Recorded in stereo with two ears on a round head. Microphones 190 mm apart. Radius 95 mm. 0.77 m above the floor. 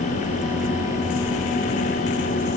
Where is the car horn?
I don't hear a car horn.